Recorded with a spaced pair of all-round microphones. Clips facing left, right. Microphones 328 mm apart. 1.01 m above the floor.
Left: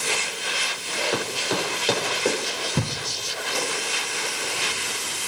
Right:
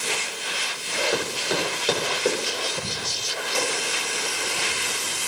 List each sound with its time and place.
1.1 s running footsteps: 5° right (ahead or behind), 9.5 m; by 2.6 s centre (ahead or behind), 10 m
2.8 s a thud: 65° left (ahead or behind), 1.6 m